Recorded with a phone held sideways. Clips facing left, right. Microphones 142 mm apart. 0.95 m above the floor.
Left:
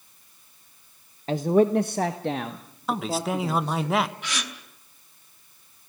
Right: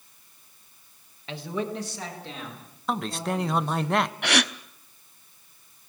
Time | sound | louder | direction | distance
1.3 | a man speaking | left 12 dB | 40° left (ahead or behind) | 0.7 m
2.9 | a man speaking | left 2 dB | 5° left (ahead or behind) | 1.1 m
4.2 | a gasp | right 9 dB | 70° right (ahead or behind) | 0.9 m